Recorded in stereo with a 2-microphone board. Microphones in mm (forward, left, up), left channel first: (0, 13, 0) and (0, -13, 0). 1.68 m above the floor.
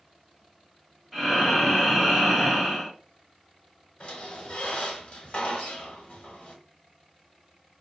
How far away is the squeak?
About 1.1 m.